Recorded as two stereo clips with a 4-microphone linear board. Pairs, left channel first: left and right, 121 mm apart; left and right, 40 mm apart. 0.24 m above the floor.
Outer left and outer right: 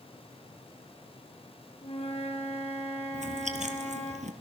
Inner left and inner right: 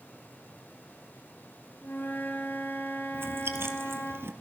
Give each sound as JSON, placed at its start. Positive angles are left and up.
{"t": 1.8, "sound": "a flute", "side_deg": 60, "distance_m": 4.5}
{"t": 3.1, "sound": "chewing", "side_deg": -80, "distance_m": 2.5}